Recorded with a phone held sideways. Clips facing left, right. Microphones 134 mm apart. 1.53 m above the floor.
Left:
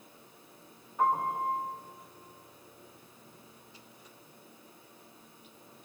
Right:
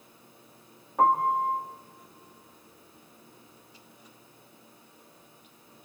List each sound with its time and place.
1.0 s a piano: 80° right, 2.5 m